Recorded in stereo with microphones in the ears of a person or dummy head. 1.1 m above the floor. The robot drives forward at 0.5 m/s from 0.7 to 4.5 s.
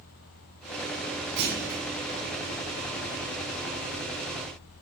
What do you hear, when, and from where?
1.4 s a clunk: 60° right (ahead or behind), 3.5 m; by 1.8 s 65° right (ahead or behind), 3.5 m